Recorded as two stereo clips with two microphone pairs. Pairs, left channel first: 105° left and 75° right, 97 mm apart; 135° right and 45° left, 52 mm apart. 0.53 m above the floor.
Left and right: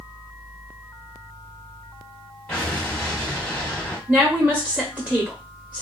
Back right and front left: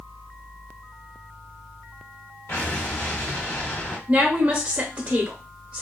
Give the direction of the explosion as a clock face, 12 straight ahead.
6 o'clock.